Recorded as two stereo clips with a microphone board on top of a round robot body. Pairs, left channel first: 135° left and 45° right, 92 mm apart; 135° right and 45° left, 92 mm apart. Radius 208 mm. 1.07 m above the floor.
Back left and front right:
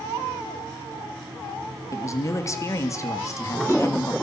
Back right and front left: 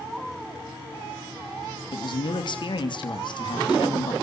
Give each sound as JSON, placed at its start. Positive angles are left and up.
{"t": 1.9, "sound": "a man speaking", "azimuth_deg": -170, "distance_m": 2.5}